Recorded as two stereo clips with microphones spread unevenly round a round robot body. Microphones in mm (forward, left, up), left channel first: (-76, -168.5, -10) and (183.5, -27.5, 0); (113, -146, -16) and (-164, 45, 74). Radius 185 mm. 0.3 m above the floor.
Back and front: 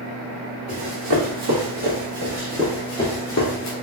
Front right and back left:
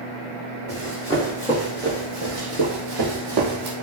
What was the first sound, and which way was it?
Running footsteps, 60° left.